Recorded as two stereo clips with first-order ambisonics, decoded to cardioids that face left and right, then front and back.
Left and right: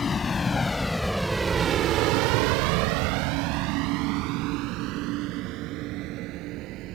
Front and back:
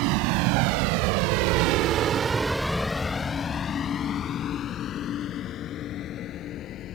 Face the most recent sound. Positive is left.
turn(degrees=-50)